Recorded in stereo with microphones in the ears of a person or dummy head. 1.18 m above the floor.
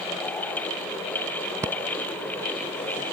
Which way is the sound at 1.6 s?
15° right (ahead or behind).